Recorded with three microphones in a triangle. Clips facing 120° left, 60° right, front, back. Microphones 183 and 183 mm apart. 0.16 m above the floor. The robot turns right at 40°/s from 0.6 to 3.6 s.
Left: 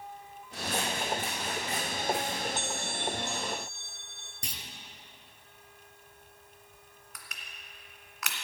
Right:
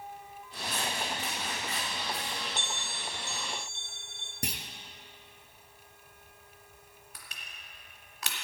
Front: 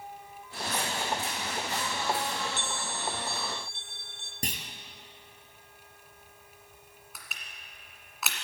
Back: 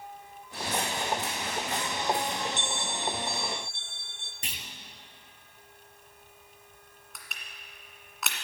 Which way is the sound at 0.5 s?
130° left.